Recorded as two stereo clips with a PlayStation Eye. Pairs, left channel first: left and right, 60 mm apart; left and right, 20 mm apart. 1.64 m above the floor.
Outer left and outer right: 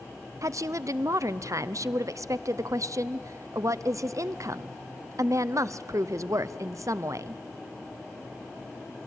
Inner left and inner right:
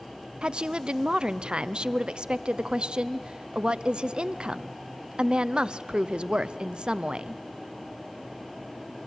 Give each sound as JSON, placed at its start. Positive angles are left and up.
{"t": 0.4, "sound": "a woman speaking", "side_deg": -60, "distance_m": 0.6}